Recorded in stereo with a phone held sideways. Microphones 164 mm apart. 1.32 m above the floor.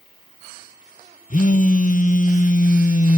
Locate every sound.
1.3 s a phone buzzing: 50° left (ahead or behind), 0.7 m